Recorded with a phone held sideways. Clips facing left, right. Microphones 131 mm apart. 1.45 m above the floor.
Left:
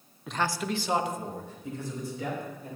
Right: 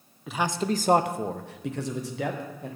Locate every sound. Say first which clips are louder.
0.3 s a man speaking: right 3 dB; centre (ahead or behind), 0.5 m; by 2.8 s 80° right, 1.8 m